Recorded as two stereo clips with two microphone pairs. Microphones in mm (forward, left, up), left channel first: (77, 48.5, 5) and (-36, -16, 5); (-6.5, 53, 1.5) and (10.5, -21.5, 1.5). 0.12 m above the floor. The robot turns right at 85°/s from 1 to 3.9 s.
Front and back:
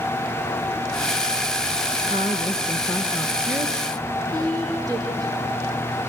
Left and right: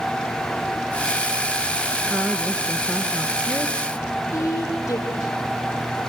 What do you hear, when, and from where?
2.0 s a woman speaking: 15° left, 1.8 m; by 3.8 s 160° left, 1.8 m
4.3 s a woman speaking: 150° left, 5 m